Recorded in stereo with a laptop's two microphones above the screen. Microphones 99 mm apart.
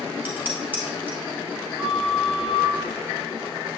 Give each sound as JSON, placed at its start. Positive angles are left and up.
{"t": 0.2, "sound": "dishes clattering", "side_deg": -20, "distance_m": 4.0}
{"t": 1.8, "sound": "a flute", "side_deg": -5, "distance_m": 2.5}